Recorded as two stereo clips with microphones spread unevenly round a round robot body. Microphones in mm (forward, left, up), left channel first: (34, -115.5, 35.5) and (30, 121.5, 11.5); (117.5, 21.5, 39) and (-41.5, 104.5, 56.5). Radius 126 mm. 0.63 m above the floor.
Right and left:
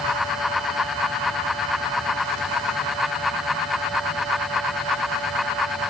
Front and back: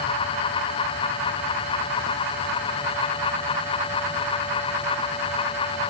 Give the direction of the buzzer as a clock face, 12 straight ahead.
No buzzer in this recording.